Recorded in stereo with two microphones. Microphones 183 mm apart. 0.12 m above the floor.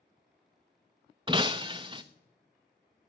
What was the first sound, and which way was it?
Breaking glass, 25° right (ahead or behind).